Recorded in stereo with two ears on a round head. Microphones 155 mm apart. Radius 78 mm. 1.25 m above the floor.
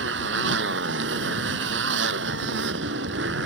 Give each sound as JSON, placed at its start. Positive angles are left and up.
{"t": 0.0, "sound": "a motorcycle", "side_deg": -85}